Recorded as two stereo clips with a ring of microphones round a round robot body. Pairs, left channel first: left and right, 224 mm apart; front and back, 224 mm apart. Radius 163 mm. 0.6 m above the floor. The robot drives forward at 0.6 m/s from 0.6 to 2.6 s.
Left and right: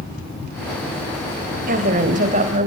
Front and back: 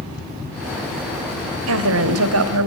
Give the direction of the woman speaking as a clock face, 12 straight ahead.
5 o'clock.